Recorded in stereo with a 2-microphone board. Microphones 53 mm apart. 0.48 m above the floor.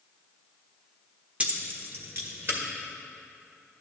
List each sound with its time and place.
1.4 s keys jangling: 25° right (ahead or behind), 0.8 m; by 2.6 s 50° right (ahead or behind), 1.4 m